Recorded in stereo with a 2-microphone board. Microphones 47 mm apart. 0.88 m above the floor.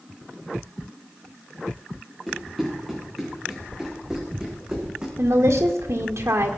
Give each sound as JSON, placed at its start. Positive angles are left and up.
{"t": 2.3, "sound": "running footsteps", "side_deg": 10, "distance_m": 5.5}
{"t": 5.2, "sound": "a woman speaking", "side_deg": -75, "distance_m": 1.9}